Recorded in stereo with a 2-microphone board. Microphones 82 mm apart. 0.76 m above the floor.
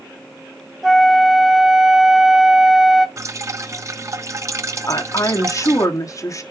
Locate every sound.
0.8 s a flute: centre (ahead or behind), 0.6 m
3.2 s dripping: 35° right (ahead or behind), 0.7 m
4.9 s a woman speaking: 45° left (ahead or behind), 1.6 m